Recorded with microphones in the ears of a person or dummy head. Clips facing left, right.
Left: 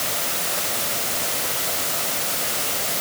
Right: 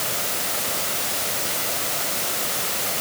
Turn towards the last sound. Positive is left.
No sound to turn to.